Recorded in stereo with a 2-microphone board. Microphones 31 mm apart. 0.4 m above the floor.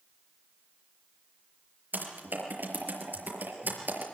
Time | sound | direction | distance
1.9 | typing on a keyboard | 80° right | 5.5 m